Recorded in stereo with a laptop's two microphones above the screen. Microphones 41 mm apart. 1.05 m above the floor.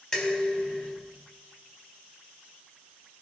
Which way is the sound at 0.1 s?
15° left (ahead or behind).